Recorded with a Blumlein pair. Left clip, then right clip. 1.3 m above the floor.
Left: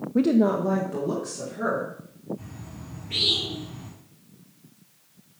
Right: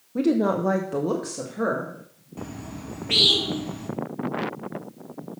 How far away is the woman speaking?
About 0.6 m.